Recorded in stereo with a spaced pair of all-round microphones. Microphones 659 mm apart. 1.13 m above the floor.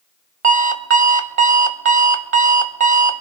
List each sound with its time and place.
0.4 s an alarm clock: 50° right (ahead or behind), 0.8 m